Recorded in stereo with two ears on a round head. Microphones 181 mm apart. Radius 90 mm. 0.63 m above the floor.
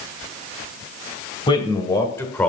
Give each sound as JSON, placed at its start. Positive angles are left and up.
{"t": 1.5, "sound": "a man speaking", "side_deg": 25, "distance_m": 2.5}